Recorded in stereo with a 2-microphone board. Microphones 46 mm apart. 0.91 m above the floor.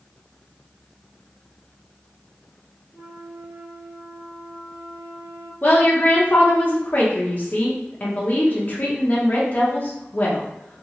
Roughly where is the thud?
No thud in this recording.